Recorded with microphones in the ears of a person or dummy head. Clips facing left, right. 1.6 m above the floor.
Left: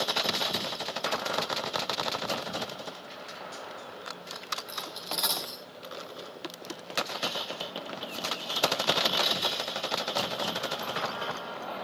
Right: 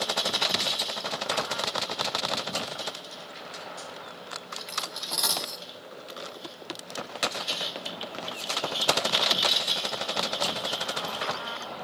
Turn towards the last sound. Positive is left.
turn(degrees=5)  # may be behind; listen again after turning